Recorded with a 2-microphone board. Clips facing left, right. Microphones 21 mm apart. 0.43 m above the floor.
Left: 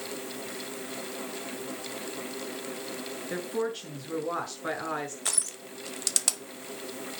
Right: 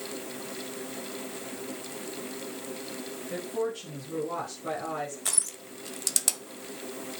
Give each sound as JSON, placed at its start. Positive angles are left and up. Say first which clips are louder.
{"t": 3.3, "sound": "a woman speaking", "louder": "even", "side_deg": 40, "distance_m": 5.0}
{"t": 5.2, "sound": "crushing", "louder": "even", "side_deg": 10, "distance_m": 1.3}